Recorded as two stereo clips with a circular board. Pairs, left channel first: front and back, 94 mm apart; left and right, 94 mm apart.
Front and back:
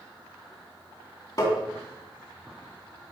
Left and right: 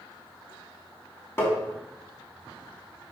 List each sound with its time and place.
1.4 s tapping: 35° left, 2.5 m